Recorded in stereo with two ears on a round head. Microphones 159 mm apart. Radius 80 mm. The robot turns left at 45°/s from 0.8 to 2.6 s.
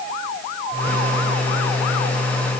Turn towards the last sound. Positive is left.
No sound to turn to.